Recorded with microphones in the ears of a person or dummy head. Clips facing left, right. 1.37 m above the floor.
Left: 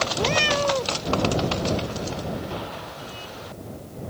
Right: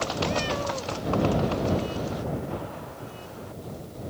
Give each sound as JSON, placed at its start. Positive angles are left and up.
{"t": 0.1, "sound": "a cat meowing", "side_deg": 65}